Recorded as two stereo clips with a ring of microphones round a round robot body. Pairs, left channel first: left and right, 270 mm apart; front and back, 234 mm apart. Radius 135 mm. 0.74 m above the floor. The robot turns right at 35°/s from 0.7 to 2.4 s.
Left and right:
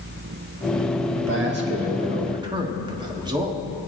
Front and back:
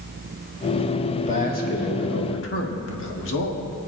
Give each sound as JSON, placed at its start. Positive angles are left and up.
{"t": 1.1, "sound": "a man speaking", "azimuth_deg": -60, "distance_m": 1.5}